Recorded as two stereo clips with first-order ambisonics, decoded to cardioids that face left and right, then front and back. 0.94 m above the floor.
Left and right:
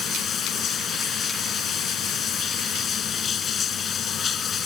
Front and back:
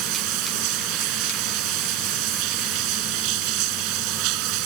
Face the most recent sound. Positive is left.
turn(degrees=155)